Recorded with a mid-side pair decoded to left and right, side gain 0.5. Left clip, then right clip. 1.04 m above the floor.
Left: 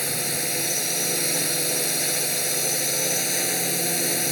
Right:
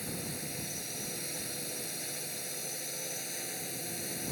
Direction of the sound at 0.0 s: 70° left.